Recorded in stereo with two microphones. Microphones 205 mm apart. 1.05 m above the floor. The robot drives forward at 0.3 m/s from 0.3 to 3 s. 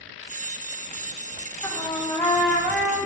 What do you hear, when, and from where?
1.6 s a trumpet: 10° left (ahead or behind), 1.2 m; by 3.0 s 5° left (ahead or behind), 1.6 m